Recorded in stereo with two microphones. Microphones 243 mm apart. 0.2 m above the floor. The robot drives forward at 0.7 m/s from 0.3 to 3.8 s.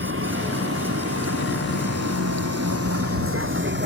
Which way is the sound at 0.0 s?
55° right (ahead or behind).